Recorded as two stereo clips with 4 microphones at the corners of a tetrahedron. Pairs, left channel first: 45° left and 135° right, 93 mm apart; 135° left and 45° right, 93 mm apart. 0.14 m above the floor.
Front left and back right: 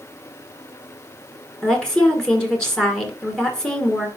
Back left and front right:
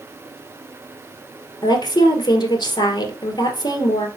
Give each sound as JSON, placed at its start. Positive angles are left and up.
{"t": 1.6, "sound": "a woman speaking", "azimuth_deg": 125, "distance_m": 1.9}